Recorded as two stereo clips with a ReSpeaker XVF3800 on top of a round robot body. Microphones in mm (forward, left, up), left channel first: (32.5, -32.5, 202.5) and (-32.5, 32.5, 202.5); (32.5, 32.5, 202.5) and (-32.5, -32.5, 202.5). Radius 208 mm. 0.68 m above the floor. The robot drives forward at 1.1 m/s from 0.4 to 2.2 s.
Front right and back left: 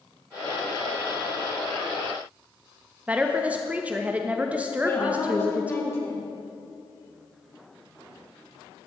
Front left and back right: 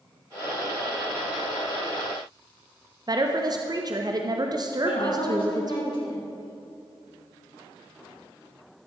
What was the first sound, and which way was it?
A woman speaking, 155° right.